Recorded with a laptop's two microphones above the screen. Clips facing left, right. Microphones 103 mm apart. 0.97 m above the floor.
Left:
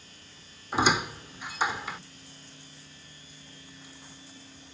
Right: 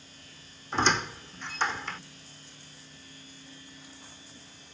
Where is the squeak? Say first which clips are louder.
Left 2 dB; 10° left (ahead or behind).